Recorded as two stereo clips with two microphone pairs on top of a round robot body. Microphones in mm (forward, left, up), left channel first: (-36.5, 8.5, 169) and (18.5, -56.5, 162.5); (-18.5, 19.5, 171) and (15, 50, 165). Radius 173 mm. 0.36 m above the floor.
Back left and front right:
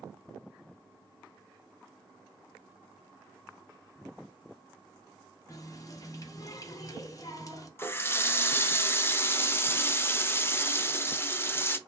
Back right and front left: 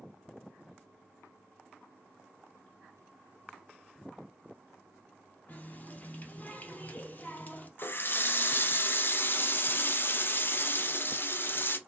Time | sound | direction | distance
5.5 | a running tap | 170° left | 0.8 m
7.8 | a running tap | 170° right | 0.6 m